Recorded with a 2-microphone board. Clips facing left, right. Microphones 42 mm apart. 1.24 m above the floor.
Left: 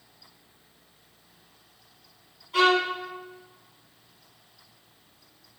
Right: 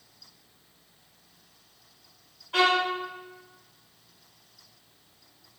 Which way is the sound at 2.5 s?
55° right (ahead or behind).